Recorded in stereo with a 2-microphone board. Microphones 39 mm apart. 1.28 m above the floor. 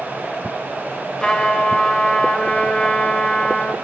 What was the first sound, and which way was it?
A trumpet, 20° left (ahead or behind).